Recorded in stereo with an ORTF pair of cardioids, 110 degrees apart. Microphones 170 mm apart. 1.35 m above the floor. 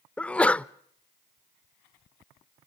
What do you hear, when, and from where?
0.2 s a sneeze: 10° left, 0.5 m